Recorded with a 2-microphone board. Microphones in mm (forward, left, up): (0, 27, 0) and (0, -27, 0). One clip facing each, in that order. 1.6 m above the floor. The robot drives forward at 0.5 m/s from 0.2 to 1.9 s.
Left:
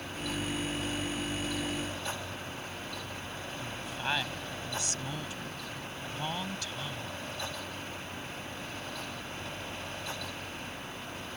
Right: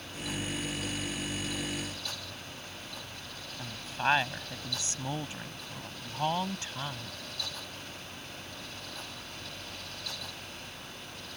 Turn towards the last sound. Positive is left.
turn(degrees=-30)  # may be behind; listen again after turning